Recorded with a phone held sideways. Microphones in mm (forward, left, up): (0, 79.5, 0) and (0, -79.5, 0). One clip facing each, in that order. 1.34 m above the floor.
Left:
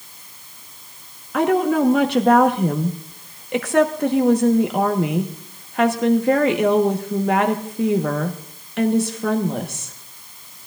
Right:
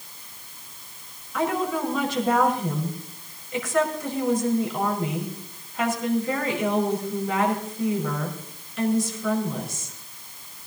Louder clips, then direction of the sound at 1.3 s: Left 8 dB; 70° left (ahead or behind).